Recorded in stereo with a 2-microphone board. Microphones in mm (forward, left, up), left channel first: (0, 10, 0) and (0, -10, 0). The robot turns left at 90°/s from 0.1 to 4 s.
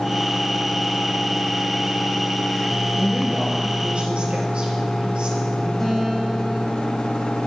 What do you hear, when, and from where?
2.9 s a woman speaking: 20° right, 3.5 m; by 5.7 s 115° right, 3.5 m
5.8 s a guitar: 15° left (ahead or behind), 7 m